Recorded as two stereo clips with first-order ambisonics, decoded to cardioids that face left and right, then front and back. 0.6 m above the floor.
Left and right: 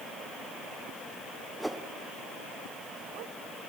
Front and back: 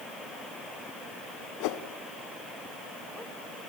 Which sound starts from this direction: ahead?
A whoosh, at 1.6 s.